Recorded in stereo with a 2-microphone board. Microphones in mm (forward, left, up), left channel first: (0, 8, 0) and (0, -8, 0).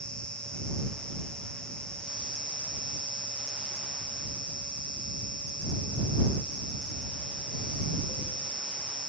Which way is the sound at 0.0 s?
80° left.